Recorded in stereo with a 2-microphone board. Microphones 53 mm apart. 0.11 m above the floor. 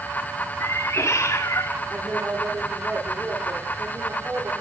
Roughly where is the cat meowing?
Left.